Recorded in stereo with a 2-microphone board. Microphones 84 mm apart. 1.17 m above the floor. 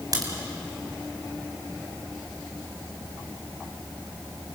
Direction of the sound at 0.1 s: 45° right (ahead or behind).